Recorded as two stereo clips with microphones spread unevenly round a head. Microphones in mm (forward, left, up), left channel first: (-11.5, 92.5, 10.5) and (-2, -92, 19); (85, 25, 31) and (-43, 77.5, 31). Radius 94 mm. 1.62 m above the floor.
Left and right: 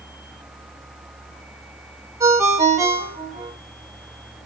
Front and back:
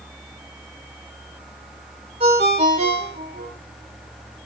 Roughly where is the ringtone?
Behind right.